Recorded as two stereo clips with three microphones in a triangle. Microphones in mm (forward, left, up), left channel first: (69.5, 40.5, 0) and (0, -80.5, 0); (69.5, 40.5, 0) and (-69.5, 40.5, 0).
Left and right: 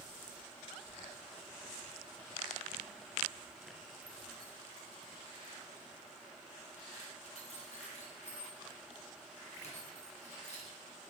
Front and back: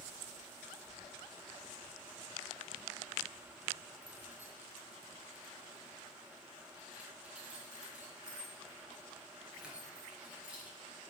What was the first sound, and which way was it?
Keys jangling, 140° right.